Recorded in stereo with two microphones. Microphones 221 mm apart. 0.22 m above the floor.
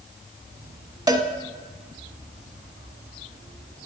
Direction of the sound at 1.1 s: 20° right (ahead or behind).